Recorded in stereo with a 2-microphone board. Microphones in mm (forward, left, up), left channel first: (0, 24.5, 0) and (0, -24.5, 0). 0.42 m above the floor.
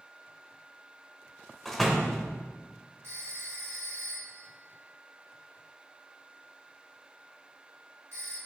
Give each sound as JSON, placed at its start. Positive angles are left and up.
{"t": 1.6, "sound": "a door slam", "side_deg": 5, "distance_m": 0.8}
{"t": 3.0, "sound": "a phone ringing", "side_deg": -60, "distance_m": 3.0}